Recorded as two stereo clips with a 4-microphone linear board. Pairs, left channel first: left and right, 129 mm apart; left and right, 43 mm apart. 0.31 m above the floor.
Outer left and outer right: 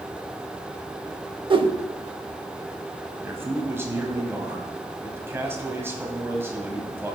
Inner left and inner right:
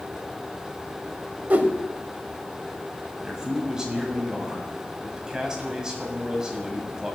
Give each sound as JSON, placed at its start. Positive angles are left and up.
{"t": 1.5, "sound": "a whoosh", "side_deg": -40, "distance_m": 0.5}
{"t": 3.2, "sound": "a man speaking", "side_deg": -20, "distance_m": 1.8}